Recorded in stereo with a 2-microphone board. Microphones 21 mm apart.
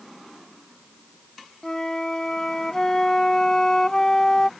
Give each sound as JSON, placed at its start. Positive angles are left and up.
{"t": 1.6, "sound": "a flute", "side_deg": 25}